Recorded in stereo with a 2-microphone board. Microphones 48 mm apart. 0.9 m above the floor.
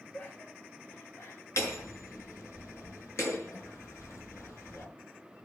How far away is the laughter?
About 3 m.